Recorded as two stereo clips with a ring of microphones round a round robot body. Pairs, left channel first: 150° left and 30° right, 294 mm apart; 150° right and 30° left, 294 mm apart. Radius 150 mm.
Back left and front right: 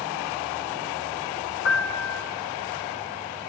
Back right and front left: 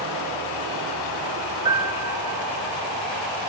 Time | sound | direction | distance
1.6 | a piano | 105° left | 0.8 m